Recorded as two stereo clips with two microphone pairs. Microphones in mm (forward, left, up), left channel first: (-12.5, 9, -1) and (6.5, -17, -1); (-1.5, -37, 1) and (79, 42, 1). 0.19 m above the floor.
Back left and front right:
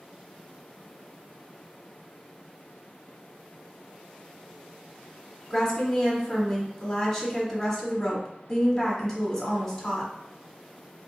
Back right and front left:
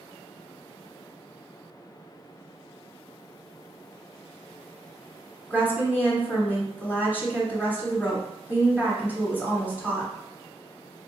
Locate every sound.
5.5 s a woman speaking: 70° left, 1.2 m